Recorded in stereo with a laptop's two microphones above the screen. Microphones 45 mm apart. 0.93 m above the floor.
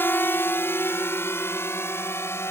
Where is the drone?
50° left (ahead or behind); by 2.5 s 60° left (ahead or behind).